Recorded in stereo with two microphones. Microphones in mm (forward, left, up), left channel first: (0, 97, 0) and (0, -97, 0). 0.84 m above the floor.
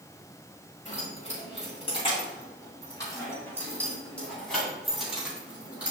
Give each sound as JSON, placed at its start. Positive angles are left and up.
{"t": 0.8, "sound": "keys jangling", "side_deg": 40, "distance_m": 3.5}